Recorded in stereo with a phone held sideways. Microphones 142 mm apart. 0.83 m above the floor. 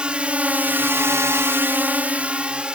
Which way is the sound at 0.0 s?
5° right (ahead or behind).